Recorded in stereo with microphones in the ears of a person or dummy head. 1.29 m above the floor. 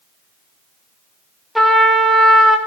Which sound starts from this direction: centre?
A trumpet, at 1.6 s.